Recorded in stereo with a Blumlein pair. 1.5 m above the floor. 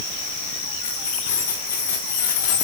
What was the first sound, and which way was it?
Keys jangling, 60° left.